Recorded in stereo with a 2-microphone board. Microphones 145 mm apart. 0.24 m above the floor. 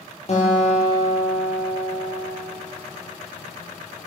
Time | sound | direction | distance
0.3 | a guitar | 50° left (ahead or behind) | 7.5 m